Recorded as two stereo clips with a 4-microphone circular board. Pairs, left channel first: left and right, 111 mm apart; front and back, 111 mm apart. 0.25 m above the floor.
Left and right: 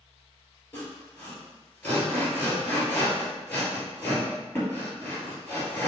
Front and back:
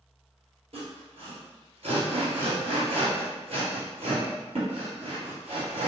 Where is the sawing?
165° left, 1.9 m.